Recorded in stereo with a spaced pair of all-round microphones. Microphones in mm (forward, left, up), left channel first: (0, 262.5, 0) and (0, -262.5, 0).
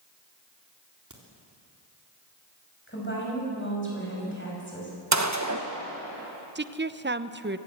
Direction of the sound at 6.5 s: 20° right (ahead or behind).